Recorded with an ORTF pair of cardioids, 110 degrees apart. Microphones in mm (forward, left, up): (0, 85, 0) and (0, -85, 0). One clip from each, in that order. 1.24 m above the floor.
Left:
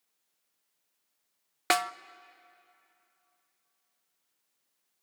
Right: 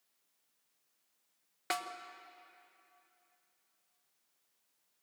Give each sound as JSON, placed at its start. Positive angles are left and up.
{"t": 1.7, "sound": "a snare drum", "azimuth_deg": 50, "distance_m": 0.5}